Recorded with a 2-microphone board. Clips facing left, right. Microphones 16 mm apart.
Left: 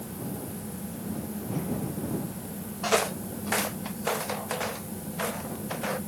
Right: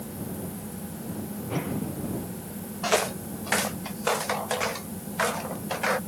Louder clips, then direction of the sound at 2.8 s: Right 1 dB; 10° right (ahead or behind).